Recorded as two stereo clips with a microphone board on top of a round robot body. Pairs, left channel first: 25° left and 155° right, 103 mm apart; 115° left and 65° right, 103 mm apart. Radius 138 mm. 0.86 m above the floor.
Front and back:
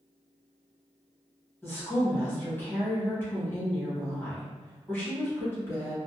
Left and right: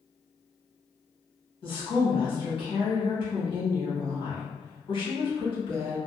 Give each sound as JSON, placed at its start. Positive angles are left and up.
{"t": 1.6, "sound": "a woman speaking", "azimuth_deg": 90, "distance_m": 1.4}